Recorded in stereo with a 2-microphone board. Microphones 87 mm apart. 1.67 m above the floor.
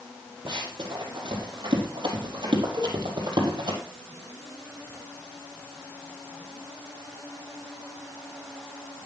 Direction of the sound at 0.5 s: 60° right (ahead or behind).